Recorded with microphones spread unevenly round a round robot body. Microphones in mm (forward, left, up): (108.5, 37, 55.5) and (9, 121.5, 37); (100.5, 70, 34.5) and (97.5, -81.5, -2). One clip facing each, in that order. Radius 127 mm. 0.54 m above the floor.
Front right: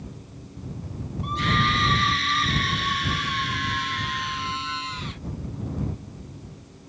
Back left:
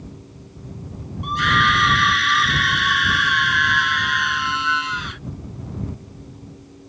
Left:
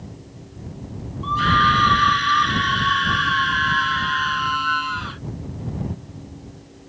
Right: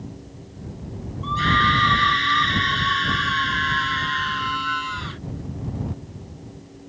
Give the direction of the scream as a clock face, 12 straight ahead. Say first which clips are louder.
Back left 5 dB, left 2 dB; 6 o'clock.